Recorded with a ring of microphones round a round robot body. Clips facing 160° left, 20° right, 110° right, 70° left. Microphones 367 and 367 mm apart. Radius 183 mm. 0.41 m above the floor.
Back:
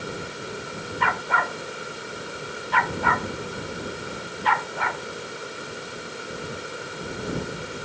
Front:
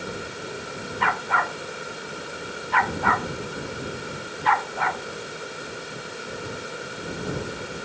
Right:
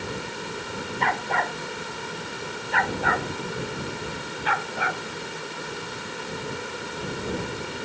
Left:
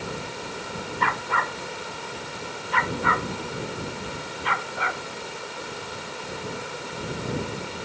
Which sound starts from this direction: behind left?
A dog barking, at 1.0 s.